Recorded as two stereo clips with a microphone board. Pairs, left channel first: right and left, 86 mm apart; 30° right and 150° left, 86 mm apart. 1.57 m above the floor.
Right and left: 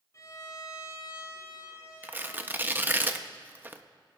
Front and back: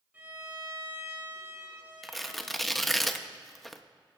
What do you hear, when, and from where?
0.1 s a violin: 140° right, 5 m
2.0 s tearing paper: 55° left, 0.6 m